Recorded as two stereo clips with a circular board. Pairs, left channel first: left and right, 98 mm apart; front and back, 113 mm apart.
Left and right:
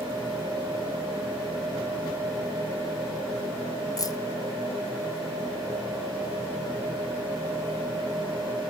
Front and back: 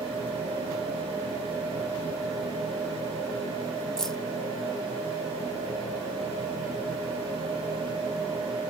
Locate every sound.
4.0 s keys jangling: 80° left, 0.6 m